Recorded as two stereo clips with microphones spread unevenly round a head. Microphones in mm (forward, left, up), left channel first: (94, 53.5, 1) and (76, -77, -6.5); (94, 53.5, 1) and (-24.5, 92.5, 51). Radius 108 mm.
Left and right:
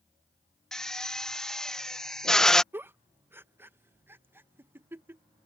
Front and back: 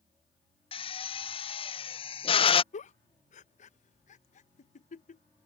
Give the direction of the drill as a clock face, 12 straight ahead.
12 o'clock.